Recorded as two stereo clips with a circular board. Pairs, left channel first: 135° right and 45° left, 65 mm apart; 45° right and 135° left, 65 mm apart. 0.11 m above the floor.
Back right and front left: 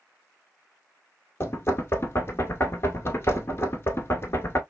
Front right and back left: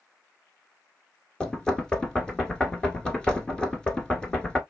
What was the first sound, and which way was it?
Knocking, 115° right.